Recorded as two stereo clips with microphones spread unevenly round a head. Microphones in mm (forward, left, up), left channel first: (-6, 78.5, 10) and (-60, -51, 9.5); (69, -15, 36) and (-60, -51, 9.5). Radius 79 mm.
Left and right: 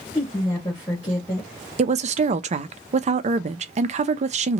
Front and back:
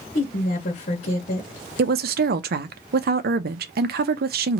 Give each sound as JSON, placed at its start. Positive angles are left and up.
{"t": 0.1, "sound": "a woman speaking", "azimuth_deg": -5, "distance_m": 1.2}
{"t": 1.8, "sound": "a woman speaking", "azimuth_deg": -155, "distance_m": 0.6}